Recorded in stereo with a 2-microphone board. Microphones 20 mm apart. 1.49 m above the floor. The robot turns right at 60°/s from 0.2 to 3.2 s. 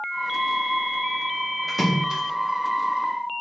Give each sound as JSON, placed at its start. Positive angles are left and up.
{"t": 1.7, "sound": "a splash", "side_deg": 0, "distance_m": 1.6}